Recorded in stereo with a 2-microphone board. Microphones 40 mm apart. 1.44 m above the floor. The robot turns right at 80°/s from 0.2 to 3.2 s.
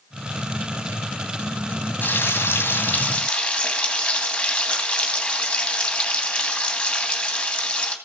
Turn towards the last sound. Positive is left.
turn(degrees=155)